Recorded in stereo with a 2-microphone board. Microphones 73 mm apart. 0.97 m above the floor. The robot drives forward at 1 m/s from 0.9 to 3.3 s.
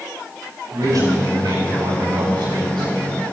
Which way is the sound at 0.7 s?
60° right (ahead or behind).